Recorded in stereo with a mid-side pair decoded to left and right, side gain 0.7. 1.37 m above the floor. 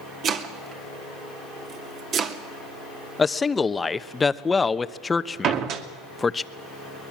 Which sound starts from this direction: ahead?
A man speaking, at 3.2 s.